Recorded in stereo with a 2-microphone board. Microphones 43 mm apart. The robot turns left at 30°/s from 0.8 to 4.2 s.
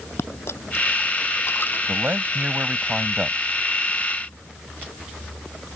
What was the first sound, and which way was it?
A dropped coin, 85° left.